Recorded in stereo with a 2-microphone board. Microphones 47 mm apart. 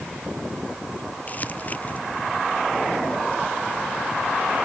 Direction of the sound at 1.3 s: 35° left (ahead or behind).